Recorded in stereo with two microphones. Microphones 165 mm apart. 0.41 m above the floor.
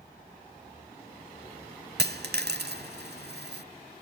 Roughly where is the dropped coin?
Right.